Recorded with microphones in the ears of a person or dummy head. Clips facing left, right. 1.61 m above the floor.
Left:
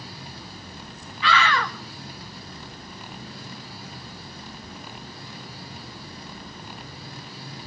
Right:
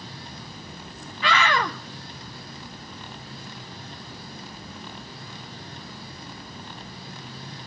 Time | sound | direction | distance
1.2 | a scream | 40° right (ahead or behind) | 1.4 m